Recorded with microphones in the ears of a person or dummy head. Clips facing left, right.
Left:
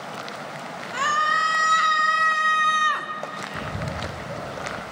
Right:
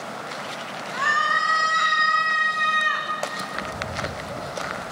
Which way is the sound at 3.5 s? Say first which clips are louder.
Left 1 dB; 20° left (ahead or behind).